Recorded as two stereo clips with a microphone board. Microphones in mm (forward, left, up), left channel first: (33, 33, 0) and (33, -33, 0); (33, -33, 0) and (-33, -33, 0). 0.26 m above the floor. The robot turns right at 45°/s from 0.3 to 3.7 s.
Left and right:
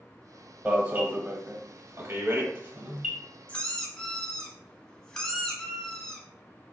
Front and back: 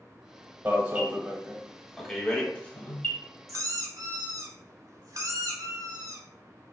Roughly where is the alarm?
Behind right.